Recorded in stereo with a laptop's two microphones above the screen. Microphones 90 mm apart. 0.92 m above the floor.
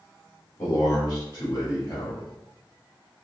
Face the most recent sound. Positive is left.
turn(degrees=50)  # may be behind; listen again after turning